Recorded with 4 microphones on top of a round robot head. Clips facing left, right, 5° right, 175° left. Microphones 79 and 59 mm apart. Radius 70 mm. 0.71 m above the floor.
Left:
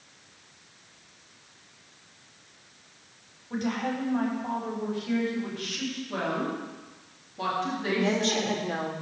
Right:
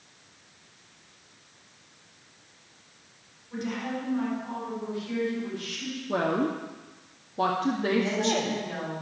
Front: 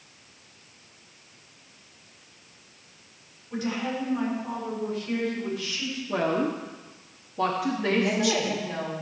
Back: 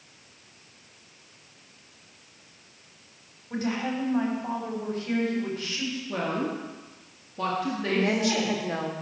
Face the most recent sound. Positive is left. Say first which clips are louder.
# left 2 dB, even
turn(degrees=125)